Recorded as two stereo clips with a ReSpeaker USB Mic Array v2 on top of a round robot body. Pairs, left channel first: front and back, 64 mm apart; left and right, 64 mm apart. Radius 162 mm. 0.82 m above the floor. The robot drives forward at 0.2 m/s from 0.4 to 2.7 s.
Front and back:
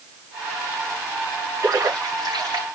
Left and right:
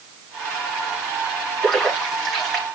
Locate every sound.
1.6 s a splash: 175° left, 6 m